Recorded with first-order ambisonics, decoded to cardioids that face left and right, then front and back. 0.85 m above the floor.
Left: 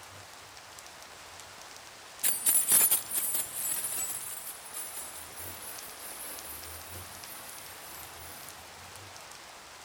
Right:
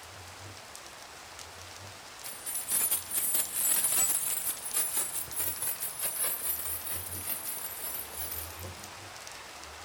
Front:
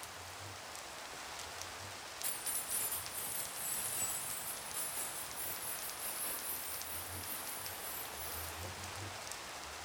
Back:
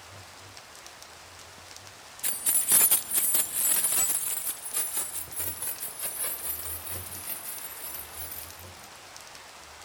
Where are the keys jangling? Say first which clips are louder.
Left 10 dB, back 13 dB; 125° left, 0.5 m; by 8.9 s 130° right, 3.5 m.